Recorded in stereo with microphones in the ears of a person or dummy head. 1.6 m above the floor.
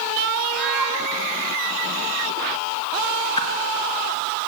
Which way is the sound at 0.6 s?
Centre (ahead or behind).